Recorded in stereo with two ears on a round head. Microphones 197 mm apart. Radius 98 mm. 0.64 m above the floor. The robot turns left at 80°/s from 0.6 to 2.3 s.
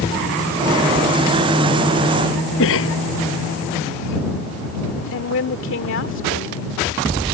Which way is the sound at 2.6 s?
65° left (ahead or behind).